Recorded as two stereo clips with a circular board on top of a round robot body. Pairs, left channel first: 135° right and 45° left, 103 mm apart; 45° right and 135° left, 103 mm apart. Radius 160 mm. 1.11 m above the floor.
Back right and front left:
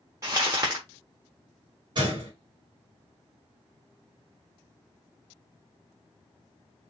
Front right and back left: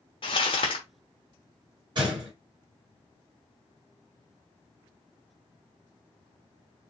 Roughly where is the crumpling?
Ahead.